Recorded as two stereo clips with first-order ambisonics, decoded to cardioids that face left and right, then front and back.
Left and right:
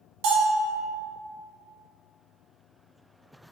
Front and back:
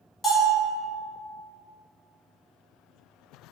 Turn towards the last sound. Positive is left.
turn(degrees=-75)